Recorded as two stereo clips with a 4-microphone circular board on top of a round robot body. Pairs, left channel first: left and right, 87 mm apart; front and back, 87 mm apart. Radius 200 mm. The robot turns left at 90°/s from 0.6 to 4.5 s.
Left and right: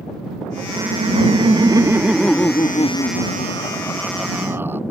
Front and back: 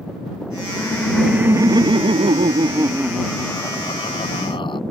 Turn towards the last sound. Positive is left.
turn(degrees=-25)